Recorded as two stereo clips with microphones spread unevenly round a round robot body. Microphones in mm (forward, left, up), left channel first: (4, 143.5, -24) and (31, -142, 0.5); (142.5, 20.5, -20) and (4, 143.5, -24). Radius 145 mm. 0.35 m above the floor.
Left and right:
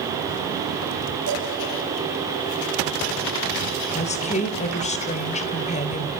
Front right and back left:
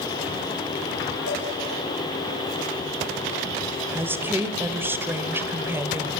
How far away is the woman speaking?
About 1.2 m.